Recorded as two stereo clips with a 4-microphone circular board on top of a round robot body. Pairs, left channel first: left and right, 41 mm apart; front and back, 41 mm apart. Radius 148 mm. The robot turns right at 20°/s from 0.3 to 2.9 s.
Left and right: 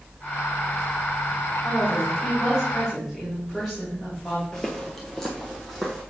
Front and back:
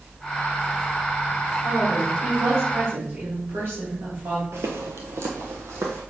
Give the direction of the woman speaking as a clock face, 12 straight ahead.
7 o'clock.